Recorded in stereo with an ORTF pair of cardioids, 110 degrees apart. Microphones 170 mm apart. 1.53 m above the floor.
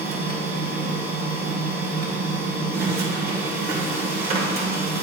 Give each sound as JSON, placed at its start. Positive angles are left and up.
{"t": 0.0, "sound": "a machine running", "azimuth_deg": -65, "distance_m": 1.6}